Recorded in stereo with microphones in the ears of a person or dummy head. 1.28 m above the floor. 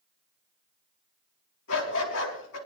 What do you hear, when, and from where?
1.7 s a dog barking: 75° left (ahead or behind), 5 m